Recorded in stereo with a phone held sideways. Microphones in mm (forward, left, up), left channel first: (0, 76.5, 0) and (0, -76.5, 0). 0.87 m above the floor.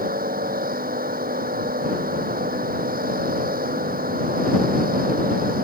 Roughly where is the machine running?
Right.